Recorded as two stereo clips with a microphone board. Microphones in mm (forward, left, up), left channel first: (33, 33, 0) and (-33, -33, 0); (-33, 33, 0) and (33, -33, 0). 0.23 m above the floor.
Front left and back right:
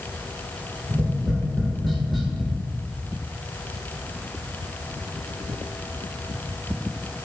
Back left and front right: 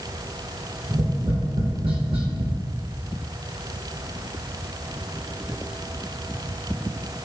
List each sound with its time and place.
0.9 s tapping: 45° right, 1.4 m